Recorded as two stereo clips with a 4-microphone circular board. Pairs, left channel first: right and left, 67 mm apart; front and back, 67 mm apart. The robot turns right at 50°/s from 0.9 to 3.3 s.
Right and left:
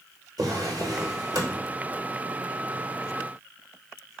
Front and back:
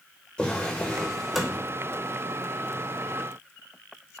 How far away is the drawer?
About 0.8 m.